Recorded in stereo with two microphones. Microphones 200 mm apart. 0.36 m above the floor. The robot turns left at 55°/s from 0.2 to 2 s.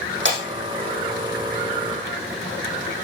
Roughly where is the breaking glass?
Right.